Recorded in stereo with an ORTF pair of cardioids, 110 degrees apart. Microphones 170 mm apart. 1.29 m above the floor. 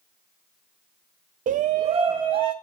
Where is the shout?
50° right, 0.5 m; by 2.5 s 30° right, 1.0 m.